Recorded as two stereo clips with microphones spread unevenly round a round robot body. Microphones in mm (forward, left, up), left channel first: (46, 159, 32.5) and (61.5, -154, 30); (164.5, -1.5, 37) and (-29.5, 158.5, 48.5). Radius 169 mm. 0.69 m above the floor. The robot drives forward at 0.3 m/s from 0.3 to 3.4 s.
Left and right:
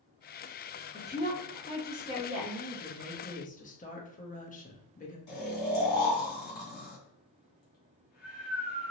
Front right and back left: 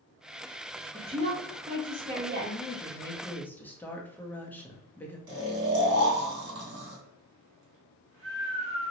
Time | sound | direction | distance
0.9 | a woman speaking | 105° left | 1.0 m
2.4 | a woman speaking | 25° left | 1.1 m
5.3 | snoring | 110° left | 2.0 m